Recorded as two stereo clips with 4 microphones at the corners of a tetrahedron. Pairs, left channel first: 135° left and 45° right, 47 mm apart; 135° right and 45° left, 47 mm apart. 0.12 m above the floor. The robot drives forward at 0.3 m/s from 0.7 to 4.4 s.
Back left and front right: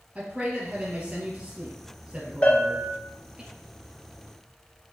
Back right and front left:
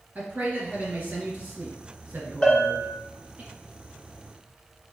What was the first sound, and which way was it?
A man speaking, 10° left.